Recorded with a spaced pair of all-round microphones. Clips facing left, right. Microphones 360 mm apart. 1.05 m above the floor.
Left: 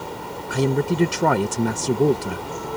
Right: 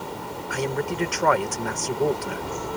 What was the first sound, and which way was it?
A man speaking, 50° left (ahead or behind).